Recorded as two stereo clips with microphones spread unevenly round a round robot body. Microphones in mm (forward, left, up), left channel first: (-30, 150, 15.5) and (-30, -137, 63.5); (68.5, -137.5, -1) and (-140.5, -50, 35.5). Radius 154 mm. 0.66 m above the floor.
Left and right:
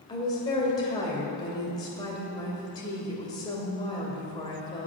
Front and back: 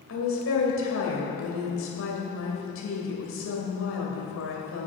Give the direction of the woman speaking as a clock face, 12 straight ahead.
12 o'clock.